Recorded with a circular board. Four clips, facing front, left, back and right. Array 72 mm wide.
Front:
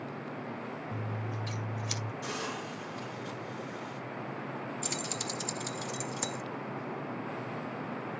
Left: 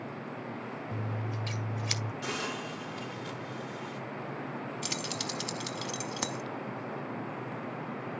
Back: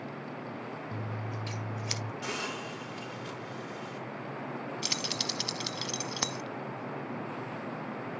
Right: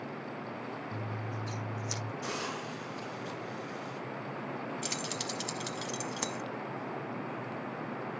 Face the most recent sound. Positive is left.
turn(degrees=170)